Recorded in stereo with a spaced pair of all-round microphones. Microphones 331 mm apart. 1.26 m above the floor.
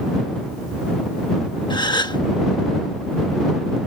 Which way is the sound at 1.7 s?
15° left (ahead or behind).